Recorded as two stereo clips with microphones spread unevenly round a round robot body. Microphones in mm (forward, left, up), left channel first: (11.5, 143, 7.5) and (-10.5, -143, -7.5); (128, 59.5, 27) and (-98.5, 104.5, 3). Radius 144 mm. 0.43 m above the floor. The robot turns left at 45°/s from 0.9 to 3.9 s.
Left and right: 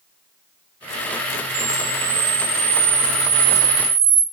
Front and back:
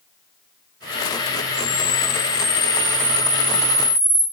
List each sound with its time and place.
1.5 s a camera shutter: 30° right, 3 m; by 4.2 s 135° right, 3 m